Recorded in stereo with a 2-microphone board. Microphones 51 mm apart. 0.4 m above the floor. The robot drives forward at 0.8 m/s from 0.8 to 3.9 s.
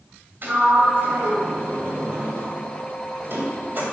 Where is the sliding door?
45° right (ahead or behind), 2.5 m.